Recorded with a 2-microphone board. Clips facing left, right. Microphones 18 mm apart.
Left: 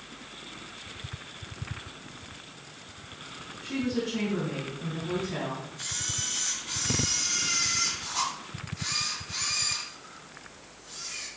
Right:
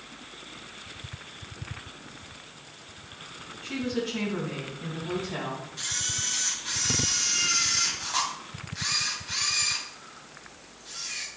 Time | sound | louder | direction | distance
3.6 | a woman speaking | even | 10° right (ahead or behind) | 3.5 m
5.8 | a camera shutter | right 4 dB | 65° right (ahead or behind) | 3 m